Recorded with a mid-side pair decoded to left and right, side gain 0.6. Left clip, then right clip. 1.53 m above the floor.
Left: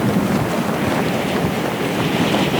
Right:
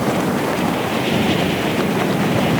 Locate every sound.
Only background noise.